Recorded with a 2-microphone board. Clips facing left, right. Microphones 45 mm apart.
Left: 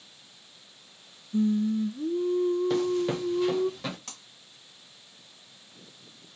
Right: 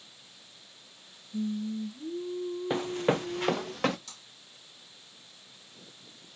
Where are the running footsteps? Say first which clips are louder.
Left 2 dB; 20° right (ahead or behind), 0.9 m; by 4.0 s 60° right (ahead or behind), 2.0 m.